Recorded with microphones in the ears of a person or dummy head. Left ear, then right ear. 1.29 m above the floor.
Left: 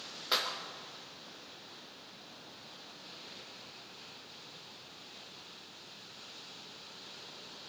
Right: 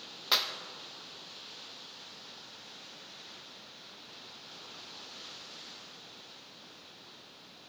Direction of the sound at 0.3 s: 15° right (ahead or behind).